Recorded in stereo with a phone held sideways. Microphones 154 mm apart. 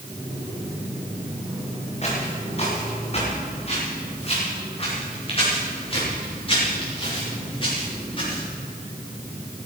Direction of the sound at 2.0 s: 45° left (ahead or behind).